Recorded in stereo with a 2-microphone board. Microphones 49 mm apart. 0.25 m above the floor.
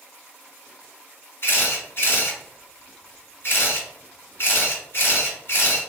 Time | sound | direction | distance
1.4 | a camera shutter | 50° left (ahead or behind) | 1.7 m